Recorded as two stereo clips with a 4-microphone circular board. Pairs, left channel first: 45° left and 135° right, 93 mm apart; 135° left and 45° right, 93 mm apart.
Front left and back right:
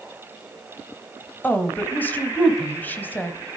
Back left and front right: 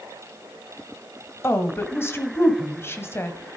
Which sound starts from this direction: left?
A woman speaking, at 1.4 s.